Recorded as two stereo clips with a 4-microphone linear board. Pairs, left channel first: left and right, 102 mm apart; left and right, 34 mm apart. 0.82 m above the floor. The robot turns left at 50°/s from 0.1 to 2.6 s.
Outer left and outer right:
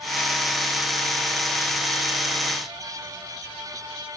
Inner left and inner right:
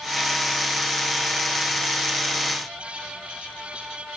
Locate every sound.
Only background noise.